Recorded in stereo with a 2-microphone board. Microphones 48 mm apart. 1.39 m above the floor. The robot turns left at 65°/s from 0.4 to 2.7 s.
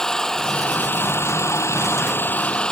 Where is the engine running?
165° left; by 2.7 s 15° left.